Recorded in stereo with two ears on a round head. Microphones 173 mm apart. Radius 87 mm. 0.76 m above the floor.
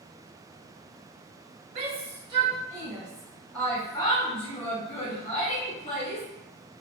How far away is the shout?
About 1.3 m.